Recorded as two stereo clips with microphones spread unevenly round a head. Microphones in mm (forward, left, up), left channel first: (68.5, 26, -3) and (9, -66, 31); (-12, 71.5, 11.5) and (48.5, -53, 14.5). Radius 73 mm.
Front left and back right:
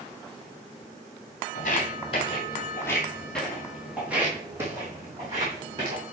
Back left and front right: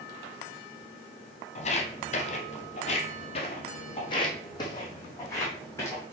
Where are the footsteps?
95° left, 1.4 m; by 6.0 s 170° right, 2.5 m.